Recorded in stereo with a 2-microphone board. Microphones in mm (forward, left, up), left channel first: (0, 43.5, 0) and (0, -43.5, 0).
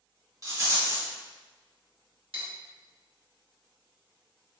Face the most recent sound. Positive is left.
turn(degrees=-75)  # may be behind; listen again after turning